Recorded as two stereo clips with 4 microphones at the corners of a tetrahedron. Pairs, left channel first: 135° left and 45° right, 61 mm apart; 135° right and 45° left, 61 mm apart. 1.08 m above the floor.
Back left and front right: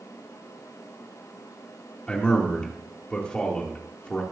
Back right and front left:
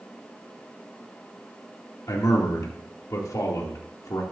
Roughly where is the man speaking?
Behind right.